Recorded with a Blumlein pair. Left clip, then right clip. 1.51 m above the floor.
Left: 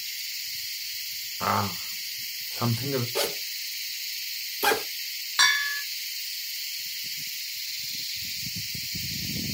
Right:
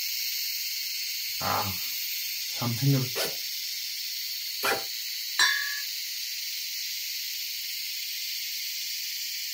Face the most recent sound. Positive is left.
turn(degrees=40)